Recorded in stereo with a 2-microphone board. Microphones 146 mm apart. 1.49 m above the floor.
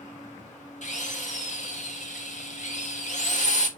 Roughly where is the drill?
Left.